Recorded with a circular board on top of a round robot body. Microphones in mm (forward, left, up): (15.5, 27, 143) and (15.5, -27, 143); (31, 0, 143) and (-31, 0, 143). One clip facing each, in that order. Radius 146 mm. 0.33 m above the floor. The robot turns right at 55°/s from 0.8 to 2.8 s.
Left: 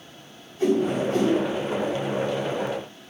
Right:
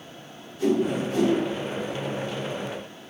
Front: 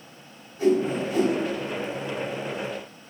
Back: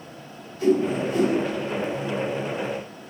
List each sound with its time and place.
0.6 s a whoosh: 65° left, 1.4 m; by 1.3 s 95° left, 1.4 m